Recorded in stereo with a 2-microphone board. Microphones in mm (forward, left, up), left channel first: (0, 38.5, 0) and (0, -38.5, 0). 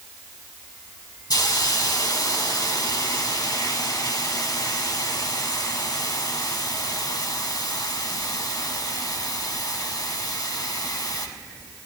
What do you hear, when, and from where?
1.3 s a hiss: 55° left (ahead or behind), 1.1 m